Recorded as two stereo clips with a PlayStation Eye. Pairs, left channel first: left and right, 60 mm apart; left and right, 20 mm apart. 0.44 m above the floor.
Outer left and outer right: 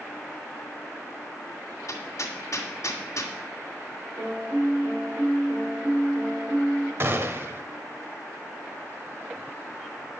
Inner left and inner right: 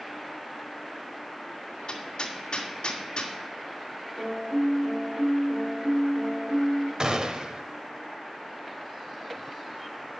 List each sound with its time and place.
1.9 s hammering: 60° left (ahead or behind), 2 m
4.2 s a piano: 40° right (ahead or behind), 5 m
7.0 s a gunshot: 40° right (ahead or behind), 1.1 m